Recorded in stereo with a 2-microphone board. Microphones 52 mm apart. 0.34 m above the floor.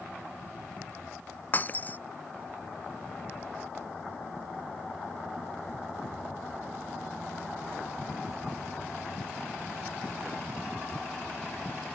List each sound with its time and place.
1.5 s breaking glass: 35° left (ahead or behind)